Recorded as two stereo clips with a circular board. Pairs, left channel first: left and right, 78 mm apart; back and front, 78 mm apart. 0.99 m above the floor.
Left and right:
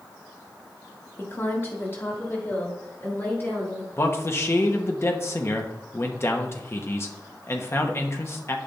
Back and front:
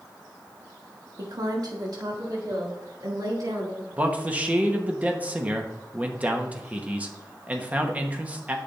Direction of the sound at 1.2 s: 30° left.